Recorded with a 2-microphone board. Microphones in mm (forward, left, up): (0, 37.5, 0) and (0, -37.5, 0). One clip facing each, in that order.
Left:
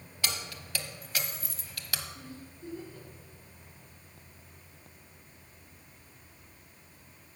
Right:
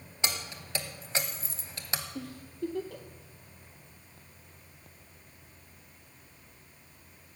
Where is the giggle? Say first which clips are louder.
Right 9 dB; 85° right, 1.2 m.